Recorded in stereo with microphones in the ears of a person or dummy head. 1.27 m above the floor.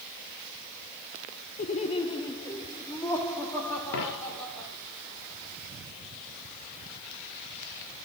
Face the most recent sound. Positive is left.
turn(degrees=60)  # may be behind; listen again after turning